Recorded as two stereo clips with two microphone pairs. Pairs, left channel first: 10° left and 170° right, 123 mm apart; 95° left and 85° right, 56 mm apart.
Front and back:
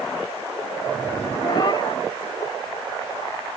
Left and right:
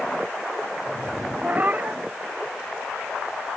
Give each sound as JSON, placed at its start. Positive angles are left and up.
{"t": 1.4, "sound": "a cat meowing", "azimuth_deg": -30}